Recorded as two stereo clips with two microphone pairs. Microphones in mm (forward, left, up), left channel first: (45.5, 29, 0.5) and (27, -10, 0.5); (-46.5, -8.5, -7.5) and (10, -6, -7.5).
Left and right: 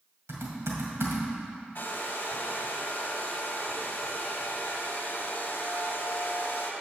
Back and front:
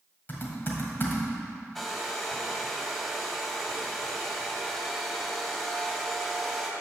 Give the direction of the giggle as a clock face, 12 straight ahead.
No giggle in this recording.